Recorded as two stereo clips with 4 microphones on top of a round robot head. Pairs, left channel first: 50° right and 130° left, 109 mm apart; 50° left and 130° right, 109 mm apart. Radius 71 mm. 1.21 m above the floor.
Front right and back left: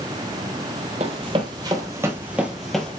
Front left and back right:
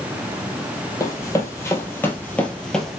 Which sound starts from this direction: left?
Running footsteps, at 1.0 s.